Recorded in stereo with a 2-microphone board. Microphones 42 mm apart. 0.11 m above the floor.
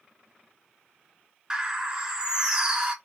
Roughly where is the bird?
Centre.